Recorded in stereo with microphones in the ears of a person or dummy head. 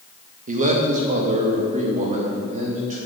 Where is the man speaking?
45° right (ahead or behind), 2.0 m.